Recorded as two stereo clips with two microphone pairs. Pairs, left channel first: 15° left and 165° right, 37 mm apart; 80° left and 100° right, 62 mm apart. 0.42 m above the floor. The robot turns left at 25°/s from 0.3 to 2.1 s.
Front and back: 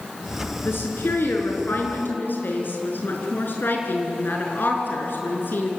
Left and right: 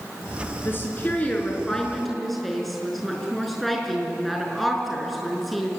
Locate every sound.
0.7 s a woman speaking: 25° left, 5.5 m; by 5.7 s 10° right, 5.5 m